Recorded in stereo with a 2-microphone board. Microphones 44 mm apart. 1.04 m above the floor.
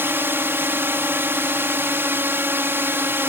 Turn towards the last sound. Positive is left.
turn(degrees=-65)  # may be behind; listen again after turning